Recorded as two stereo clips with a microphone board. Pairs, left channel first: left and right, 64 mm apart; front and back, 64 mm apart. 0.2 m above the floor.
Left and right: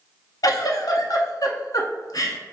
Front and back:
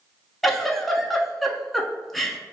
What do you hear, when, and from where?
0.4 s a giggle: 90° left, 0.5 m